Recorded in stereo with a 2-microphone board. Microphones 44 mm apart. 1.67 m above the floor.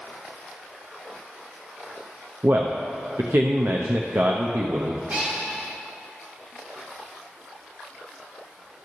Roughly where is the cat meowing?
Right.